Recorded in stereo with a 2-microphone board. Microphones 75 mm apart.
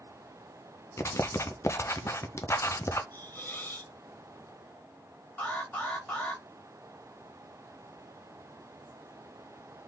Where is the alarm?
20° left (ahead or behind), 2 m.